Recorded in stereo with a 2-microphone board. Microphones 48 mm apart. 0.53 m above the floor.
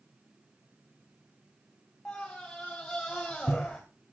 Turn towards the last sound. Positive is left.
turn(degrees=10)  # may be behind; listen again after turning